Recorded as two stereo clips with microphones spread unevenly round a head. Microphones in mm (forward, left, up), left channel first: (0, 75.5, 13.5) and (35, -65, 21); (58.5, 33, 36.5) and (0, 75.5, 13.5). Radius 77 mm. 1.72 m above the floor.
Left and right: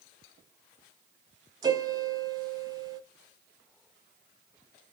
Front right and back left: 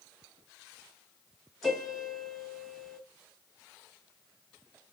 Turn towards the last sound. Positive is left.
turn(degrees=-85)